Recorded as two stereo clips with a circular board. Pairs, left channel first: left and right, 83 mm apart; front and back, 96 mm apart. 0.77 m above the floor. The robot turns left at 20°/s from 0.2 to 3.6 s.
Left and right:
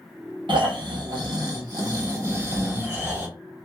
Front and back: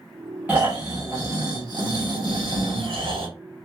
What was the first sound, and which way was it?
Snoring, 105° right.